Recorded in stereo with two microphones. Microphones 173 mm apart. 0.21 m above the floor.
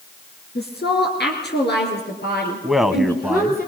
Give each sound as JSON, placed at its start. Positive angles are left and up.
{"t": 0.6, "sound": "a woman speaking", "side_deg": 65, "distance_m": 3.5}
{"t": 2.6, "sound": "a man speaking", "side_deg": 0, "distance_m": 1.1}